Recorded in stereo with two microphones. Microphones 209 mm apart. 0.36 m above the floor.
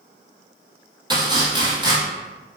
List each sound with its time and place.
1.1 s chopping: 20° right (ahead or behind), 0.9 m